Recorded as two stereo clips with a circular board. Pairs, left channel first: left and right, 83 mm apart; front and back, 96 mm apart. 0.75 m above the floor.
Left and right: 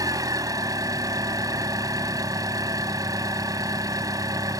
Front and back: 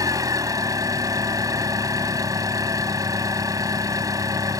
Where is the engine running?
130° right.